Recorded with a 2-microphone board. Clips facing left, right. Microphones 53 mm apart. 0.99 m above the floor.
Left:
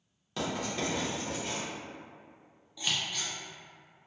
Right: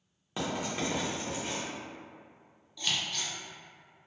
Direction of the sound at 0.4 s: 20° right (ahead or behind).